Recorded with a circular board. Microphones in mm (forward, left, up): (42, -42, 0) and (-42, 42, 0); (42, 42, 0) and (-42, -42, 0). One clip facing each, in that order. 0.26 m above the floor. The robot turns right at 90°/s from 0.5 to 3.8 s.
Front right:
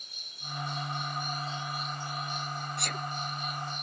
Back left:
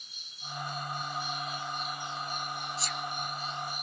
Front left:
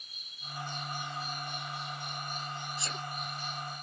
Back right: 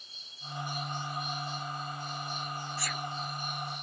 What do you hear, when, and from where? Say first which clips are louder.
0.0 s an insect: front right 1 dB, back right 2 dB; 75° right; by 3.8 s 140° right
2.8 s a sneeze: even, back right 2 dB; 25° right; by 3.1 s straight ahead